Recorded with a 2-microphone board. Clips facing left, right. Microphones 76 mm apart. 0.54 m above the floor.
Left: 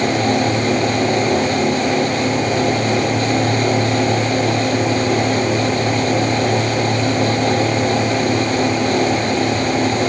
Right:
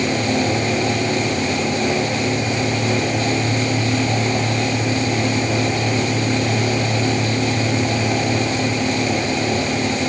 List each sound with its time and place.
Only background noise.